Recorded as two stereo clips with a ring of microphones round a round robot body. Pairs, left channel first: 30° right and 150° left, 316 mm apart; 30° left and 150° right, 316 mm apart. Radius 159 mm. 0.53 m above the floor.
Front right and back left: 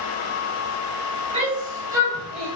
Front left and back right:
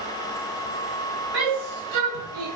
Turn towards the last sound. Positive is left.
turn(degrees=-120)